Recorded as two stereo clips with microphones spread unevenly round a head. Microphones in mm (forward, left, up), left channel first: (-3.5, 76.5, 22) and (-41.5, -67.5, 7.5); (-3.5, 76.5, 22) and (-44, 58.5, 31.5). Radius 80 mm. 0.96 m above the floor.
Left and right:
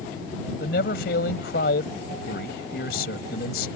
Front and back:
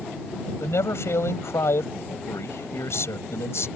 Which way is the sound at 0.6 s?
45° left.